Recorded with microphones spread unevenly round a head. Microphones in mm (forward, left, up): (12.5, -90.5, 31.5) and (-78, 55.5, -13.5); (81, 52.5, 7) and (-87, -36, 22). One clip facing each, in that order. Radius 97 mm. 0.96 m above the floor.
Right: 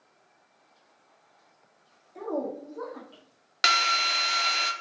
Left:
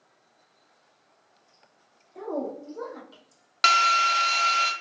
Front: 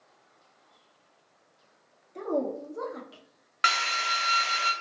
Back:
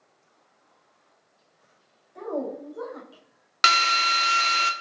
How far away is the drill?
About 0.6 m.